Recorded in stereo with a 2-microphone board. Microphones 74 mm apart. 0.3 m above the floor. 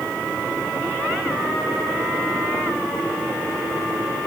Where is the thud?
No thud in this recording.